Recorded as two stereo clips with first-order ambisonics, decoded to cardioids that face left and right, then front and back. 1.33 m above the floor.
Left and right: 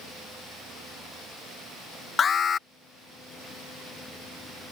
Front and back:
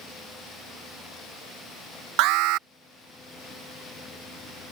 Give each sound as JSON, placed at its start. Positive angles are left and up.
{"t": 2.2, "sound": "an alarm", "azimuth_deg": 155}